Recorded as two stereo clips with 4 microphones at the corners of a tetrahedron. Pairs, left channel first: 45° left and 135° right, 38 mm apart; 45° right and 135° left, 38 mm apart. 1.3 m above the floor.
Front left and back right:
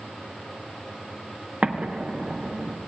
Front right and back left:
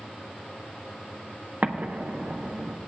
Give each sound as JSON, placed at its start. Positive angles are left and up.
{"t": 1.6, "sound": "an explosion", "azimuth_deg": 170, "distance_m": 0.7}